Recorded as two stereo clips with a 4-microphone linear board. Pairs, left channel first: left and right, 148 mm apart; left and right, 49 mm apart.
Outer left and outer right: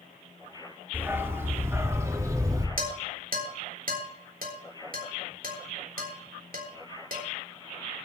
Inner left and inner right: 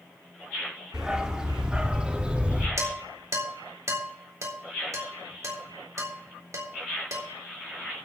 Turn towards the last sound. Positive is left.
turn(degrees=-75)  # may be behind; listen again after turning